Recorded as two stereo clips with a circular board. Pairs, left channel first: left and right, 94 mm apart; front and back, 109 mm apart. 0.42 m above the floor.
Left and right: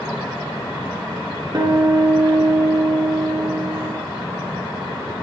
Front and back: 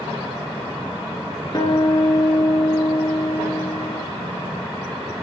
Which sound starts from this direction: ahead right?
A guitar, at 1.5 s.